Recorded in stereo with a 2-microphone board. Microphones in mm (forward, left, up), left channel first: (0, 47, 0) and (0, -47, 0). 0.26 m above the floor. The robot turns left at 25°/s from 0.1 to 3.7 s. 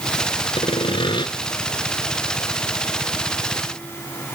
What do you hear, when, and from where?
0.6 s sawing: 70° left (ahead or behind), 1.1 m; by 1.3 s 55° left (ahead or behind), 1.1 m